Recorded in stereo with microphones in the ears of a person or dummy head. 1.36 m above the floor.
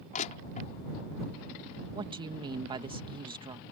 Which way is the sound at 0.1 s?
40° left (ahead or behind).